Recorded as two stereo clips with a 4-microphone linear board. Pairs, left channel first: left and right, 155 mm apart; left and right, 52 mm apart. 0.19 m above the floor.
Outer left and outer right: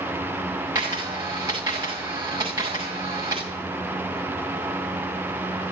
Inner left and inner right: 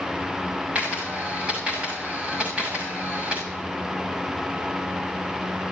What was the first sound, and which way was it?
A camera shutter, 25° right (ahead or behind).